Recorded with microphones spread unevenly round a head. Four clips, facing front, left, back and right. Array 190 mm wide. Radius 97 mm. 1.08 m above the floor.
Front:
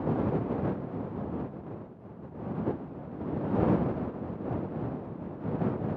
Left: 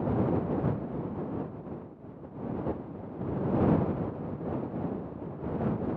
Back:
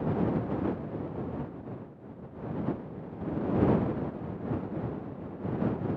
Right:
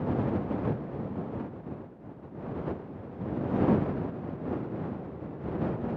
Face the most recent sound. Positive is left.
No sound to turn to.